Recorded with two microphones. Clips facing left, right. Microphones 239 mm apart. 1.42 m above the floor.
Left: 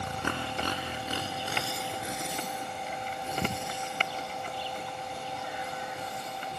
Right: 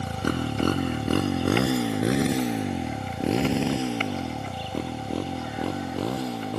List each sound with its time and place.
0.0 s a motorcycle: 35° right (ahead or behind); by 6.6 s 75° right (ahead or behind)